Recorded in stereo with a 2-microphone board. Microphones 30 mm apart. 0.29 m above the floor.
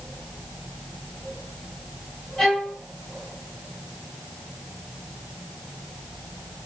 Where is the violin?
20° left (ahead or behind), 1.0 m.